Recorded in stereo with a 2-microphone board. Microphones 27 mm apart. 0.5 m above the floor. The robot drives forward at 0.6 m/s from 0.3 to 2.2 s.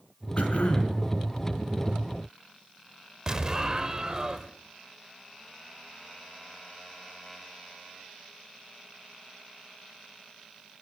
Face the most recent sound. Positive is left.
turn(degrees=-25)  # may be behind; listen again after turning